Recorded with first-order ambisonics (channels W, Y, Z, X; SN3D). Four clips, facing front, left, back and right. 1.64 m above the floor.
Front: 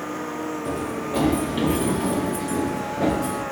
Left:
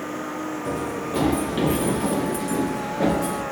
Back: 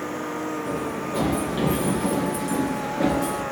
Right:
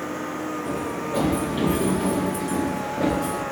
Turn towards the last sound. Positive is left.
turn(degrees=155)